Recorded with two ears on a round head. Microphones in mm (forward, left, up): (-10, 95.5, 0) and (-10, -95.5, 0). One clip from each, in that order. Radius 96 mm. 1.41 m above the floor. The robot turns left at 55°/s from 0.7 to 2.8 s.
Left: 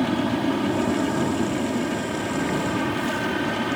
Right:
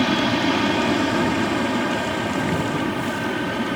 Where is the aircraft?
65° right; by 3.8 s straight behind.